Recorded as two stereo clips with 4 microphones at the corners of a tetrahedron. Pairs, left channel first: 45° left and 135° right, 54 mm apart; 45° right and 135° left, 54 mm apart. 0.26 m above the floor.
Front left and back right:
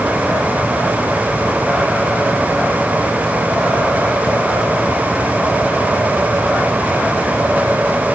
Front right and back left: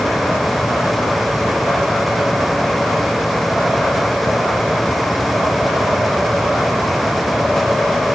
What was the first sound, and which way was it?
Only background noise.